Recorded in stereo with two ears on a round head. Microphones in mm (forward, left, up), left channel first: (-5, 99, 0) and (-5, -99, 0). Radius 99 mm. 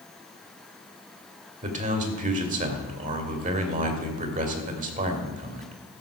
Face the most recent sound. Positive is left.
turn(degrees=-35)  # may be behind; listen again after turning